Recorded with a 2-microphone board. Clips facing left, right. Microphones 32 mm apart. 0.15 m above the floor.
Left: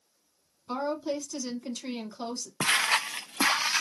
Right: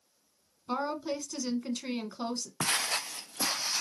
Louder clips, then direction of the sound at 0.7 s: Left 2 dB; 20° right (ahead or behind).